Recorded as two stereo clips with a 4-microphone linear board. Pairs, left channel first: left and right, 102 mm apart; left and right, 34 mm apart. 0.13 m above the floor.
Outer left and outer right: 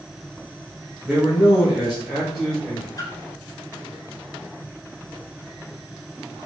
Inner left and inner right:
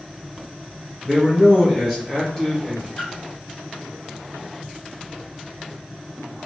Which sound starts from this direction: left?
A splash, at 3.0 s.